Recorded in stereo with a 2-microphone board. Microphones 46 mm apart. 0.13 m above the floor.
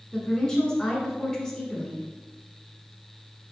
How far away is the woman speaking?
About 1.1 m.